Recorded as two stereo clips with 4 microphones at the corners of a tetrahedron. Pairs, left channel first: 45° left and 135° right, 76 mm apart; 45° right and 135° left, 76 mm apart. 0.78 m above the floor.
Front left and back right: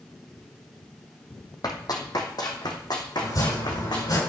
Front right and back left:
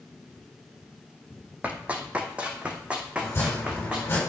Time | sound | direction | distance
1.6 | running footsteps | 65° left | 1.8 m
3.2 | chopping | 15° left | 5.5 m